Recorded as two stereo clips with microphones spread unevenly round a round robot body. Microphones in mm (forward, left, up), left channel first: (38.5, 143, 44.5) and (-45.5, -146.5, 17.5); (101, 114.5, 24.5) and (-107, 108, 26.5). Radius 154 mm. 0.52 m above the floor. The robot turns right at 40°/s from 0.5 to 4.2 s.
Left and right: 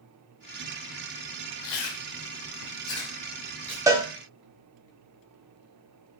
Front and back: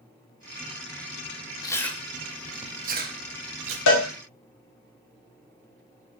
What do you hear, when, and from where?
1.6 s chewing: 75° left, 0.6 m; by 3.8 s 160° left, 0.6 m
3.9 s a cowbell: 30° right, 0.5 m; by 4.0 s 20° right, 0.5 m